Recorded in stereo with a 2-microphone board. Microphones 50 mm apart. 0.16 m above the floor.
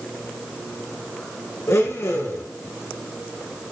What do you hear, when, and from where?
1.7 s a blender: 75° left (ahead or behind), 4.5 m